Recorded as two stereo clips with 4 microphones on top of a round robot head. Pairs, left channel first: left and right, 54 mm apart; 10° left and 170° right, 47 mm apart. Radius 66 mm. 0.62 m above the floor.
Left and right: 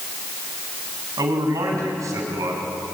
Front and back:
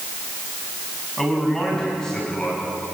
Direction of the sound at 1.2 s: 75° right.